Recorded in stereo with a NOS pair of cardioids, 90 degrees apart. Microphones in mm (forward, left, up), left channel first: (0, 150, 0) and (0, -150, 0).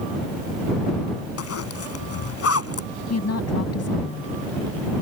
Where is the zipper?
50° left.